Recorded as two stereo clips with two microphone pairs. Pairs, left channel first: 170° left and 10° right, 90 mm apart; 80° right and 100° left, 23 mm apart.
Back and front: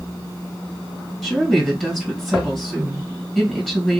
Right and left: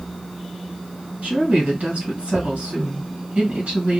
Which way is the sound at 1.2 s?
80° left.